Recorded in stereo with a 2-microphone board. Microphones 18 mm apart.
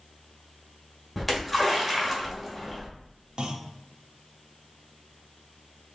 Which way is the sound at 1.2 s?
5° right (ahead or behind).